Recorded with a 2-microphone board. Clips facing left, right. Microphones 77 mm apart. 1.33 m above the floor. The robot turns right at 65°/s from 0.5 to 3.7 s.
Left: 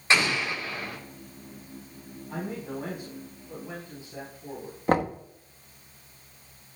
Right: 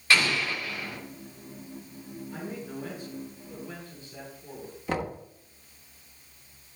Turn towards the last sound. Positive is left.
turn(degrees=45)  # may be behind; listen again after turning